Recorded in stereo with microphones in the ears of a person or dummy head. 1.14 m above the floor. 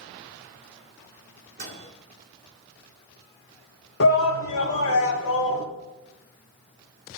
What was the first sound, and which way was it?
A microwave, 40° right (ahead or behind).